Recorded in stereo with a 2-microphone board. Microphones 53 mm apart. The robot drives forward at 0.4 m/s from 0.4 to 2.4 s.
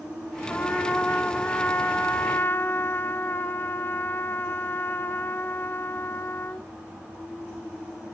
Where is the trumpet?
25° left (ahead or behind), 1.6 m; by 6.7 s 40° left (ahead or behind), 1.0 m.